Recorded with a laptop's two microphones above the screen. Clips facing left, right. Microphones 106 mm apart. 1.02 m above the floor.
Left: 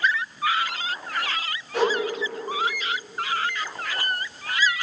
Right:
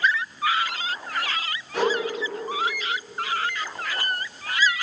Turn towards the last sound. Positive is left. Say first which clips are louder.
# left 1 dB
turn(degrees=10)  # may be behind; listen again after turning